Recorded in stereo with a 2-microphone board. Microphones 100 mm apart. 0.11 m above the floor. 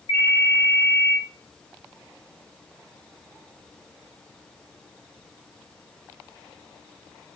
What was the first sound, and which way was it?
A ringtone, 65° left (ahead or behind).